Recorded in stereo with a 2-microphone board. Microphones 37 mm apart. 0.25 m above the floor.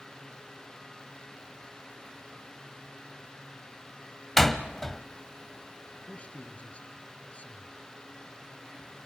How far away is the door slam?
About 1.1 m.